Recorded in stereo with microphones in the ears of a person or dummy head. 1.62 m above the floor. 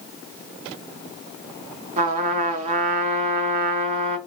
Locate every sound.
2.0 s a trumpet: 40° right (ahead or behind), 0.6 m